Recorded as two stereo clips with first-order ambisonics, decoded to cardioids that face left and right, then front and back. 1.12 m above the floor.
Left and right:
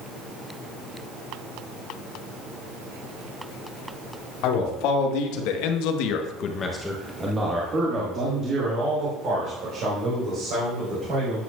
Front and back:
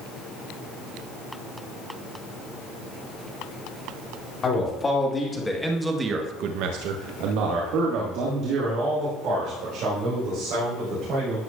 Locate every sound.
4.4 s a man speaking: 70° left, 2.5 m; by 11.4 s 135° right, 5.5 m